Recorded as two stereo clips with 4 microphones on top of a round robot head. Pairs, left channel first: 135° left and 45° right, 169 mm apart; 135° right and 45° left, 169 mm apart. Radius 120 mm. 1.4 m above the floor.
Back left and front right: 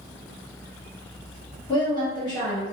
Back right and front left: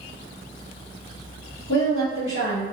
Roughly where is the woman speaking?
Behind right.